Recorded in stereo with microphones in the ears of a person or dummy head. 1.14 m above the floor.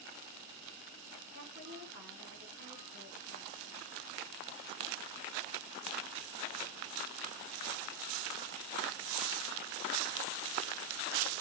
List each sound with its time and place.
1.3 s a woman speaking: 45° right (ahead or behind), 9 m; by 3.9 s 70° right (ahead or behind), 7 m